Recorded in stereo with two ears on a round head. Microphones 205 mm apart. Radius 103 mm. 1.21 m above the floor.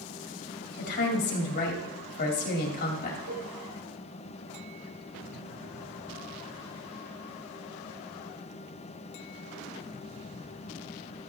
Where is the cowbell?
60° right (ahead or behind), 7 m.